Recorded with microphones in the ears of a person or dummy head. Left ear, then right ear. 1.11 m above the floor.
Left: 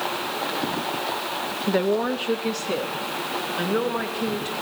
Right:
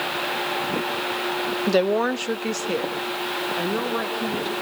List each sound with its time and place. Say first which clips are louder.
1.7 s a woman speaking: right 2 dB; 85° right, 0.7 m; by 4.5 s 5° left (ahead or behind), 2.5 m